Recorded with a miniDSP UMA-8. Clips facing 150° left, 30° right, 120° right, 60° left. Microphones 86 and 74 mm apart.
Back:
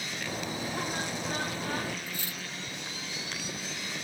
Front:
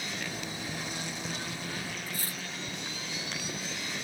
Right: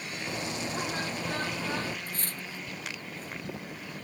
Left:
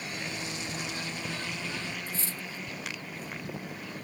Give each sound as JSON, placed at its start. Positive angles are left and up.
{"t": 0.3, "sound": "a bird", "azimuth_deg": -170}
{"t": 2.1, "sound": "cutlery clinking", "azimuth_deg": -85}